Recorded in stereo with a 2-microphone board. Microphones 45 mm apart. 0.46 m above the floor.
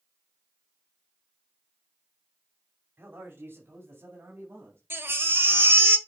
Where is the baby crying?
65° right (ahead or behind), 1.0 m.